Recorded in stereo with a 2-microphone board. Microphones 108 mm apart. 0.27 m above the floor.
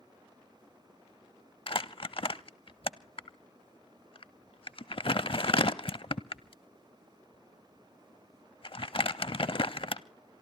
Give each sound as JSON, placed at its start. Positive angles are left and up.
{"t": 1.7, "sound": "crumpling", "side_deg": 55, "distance_m": 0.5}